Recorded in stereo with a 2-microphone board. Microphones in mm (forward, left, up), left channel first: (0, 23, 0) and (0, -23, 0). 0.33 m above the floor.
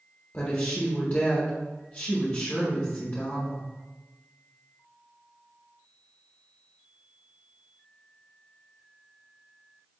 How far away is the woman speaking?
About 1.0 m.